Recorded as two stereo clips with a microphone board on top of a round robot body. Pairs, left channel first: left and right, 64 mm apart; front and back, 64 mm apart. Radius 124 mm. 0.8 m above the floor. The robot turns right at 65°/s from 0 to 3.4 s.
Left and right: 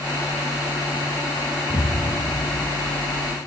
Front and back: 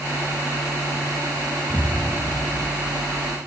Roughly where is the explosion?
Ahead left.